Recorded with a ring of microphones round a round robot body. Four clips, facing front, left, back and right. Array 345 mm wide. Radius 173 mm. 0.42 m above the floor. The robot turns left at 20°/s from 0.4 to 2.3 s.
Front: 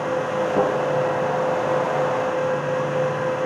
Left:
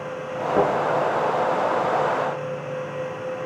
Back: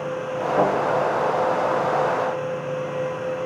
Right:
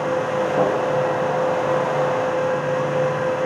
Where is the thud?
50° left, 7.5 m; by 0.7 s 45° left, 7.5 m.